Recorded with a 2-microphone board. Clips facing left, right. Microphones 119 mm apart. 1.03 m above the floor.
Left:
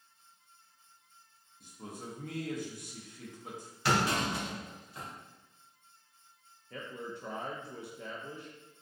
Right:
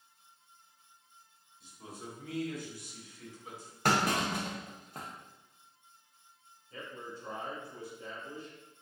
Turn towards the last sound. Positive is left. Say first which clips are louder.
# left 3 dB
turn(degrees=70)  # may be behind; listen again after turning